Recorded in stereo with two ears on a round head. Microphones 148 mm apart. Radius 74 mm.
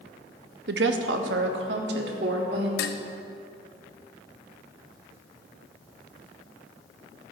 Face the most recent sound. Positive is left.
turn(degrees=65)  # may be behind; listen again after turning